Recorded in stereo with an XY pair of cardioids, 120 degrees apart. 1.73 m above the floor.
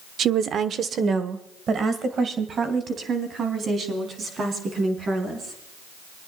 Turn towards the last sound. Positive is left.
turn(degrees=-45)